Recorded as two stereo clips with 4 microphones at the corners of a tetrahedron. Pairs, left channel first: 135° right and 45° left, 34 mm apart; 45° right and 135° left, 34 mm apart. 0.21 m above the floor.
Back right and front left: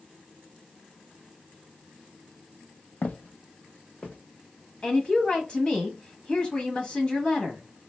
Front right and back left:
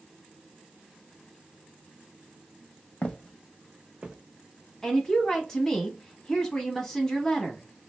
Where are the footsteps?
100° right, 0.5 m; by 4.2 s 165° right, 0.8 m.